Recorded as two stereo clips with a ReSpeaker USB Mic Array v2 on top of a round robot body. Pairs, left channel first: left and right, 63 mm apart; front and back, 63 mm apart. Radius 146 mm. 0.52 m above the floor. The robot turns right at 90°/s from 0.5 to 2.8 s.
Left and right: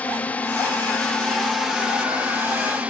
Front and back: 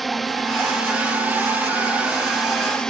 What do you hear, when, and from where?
0.0 s a drone: 85° left; by 2.9 s 65° right